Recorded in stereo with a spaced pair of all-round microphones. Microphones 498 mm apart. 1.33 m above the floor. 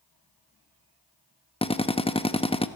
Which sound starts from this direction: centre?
A drill, at 1.6 s.